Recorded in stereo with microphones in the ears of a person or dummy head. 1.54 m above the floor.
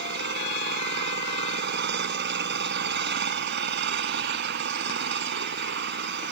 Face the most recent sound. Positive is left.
turn(degrees=-65)  # may be behind; listen again after turning